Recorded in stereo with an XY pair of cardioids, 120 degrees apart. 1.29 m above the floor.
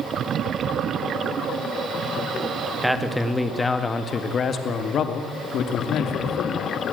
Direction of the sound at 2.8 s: Straight ahead.